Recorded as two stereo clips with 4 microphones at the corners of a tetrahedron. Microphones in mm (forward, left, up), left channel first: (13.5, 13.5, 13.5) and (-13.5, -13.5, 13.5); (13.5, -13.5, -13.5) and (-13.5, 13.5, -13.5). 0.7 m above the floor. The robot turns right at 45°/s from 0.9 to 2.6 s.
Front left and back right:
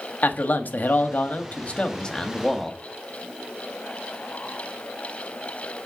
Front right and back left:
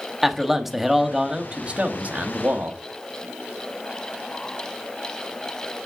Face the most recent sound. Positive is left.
turn(degrees=130)